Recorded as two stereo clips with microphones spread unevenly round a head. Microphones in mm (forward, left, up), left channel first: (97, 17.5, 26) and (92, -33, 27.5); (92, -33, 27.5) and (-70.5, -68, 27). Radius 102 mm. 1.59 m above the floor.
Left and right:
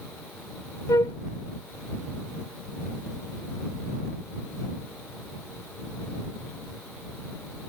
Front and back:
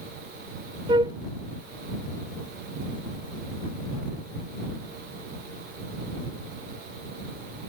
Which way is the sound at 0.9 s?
125° left.